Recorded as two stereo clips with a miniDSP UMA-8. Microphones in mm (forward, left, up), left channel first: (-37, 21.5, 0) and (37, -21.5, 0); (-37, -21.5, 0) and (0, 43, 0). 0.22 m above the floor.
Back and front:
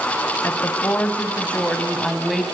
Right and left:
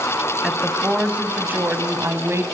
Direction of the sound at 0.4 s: 135° left.